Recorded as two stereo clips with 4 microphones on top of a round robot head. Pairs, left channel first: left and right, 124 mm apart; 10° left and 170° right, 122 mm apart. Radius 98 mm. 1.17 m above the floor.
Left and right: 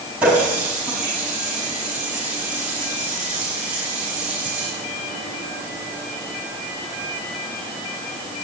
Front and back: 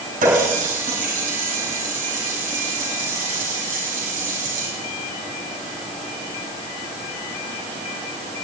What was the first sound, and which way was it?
A running tap, 175° right.